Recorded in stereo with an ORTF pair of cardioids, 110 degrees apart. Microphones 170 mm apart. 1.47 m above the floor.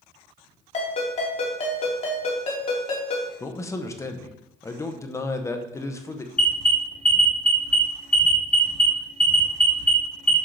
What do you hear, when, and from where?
0.7 s a ringtone: 40° left, 2.5 m
3.4 s a man speaking: 15° left, 0.9 m
6.4 s an alarm: 5° left, 3 m